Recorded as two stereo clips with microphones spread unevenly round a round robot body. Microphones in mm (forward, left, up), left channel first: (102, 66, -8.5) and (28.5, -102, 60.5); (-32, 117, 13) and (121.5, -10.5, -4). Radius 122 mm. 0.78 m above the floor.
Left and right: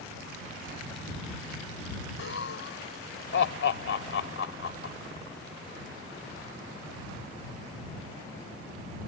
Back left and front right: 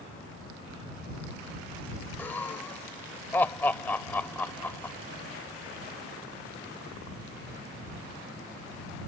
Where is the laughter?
60° left.